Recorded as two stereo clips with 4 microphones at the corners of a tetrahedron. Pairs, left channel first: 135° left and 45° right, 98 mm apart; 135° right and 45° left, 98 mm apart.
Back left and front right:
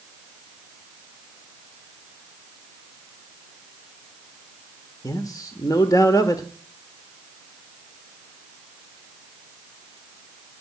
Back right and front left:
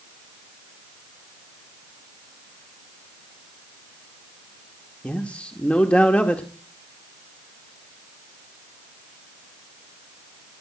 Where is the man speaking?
155° left, 1.5 m.